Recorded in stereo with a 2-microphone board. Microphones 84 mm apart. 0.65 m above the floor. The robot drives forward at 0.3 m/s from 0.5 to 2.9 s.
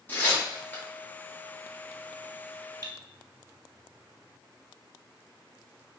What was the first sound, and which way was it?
Tearing paper, 20° left (ahead or behind).